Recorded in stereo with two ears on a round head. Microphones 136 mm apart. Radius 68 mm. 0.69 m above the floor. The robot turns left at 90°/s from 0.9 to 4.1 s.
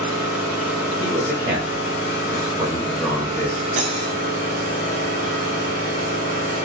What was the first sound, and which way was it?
An engine running, 170° right.